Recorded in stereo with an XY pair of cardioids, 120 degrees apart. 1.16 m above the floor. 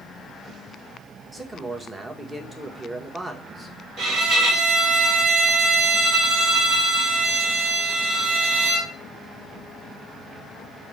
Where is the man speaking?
20° right, 1.1 m.